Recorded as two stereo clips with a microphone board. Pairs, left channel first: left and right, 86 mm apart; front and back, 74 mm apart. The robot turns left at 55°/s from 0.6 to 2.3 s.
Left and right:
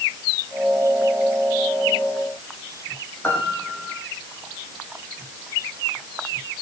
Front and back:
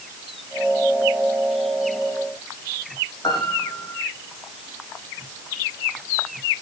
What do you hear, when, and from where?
3.2 s a piano: 25° left, 8.5 m